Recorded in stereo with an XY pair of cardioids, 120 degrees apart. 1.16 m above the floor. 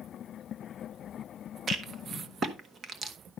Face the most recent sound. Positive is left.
turn(degrees=-40)